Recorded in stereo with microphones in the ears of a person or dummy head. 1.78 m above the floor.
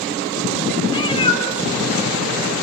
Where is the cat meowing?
25° left (ahead or behind), 2.5 m; by 2.6 s 45° left (ahead or behind), 4 m.